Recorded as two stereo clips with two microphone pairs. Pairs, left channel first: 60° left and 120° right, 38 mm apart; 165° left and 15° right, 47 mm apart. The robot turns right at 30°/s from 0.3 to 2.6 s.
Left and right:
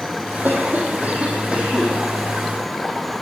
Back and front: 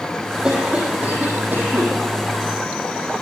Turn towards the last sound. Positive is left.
turn(degrees=-25)